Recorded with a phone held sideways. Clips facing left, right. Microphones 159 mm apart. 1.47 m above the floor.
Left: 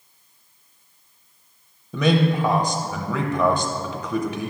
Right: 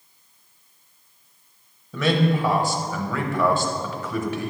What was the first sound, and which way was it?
A man speaking, 15° left (ahead or behind).